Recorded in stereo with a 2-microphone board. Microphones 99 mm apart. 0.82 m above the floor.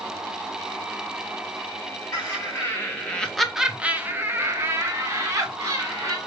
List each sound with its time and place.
2.1 s laughter: 30° left (ahead or behind), 0.8 m; by 6.2 s 35° right (ahead or behind), 1.6 m